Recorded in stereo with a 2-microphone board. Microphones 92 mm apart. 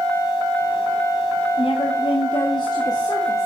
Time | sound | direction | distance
1.6 | a woman speaking | 85° left | 1.4 m